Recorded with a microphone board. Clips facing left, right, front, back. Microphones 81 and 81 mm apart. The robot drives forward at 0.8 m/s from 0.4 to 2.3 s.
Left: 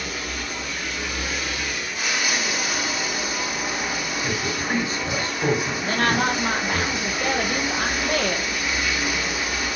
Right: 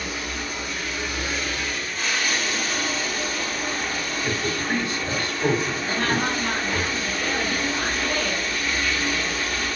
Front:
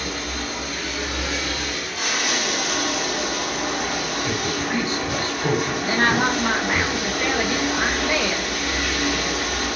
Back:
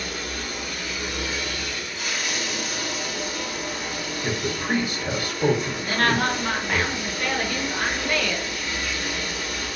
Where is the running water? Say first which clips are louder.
Even, front 3 dB; 5° left, 2.5 m; by 9.8 s 15° left, 1.0 m.